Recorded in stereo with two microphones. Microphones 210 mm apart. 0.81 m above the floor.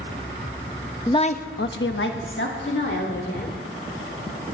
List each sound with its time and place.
1.1 s a woman speaking: 15° left (ahead or behind), 0.5 m; by 3.6 s 60° left (ahead or behind), 2.5 m